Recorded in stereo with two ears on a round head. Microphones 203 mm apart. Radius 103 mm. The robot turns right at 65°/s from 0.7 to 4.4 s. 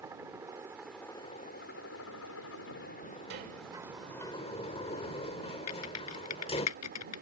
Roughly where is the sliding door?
Ahead right.